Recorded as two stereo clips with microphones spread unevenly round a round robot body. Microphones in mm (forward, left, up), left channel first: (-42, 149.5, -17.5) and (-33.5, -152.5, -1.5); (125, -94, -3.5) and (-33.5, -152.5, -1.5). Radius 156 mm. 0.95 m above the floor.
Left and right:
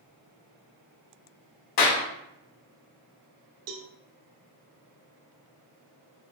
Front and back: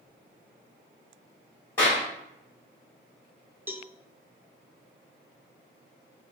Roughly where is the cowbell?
Right.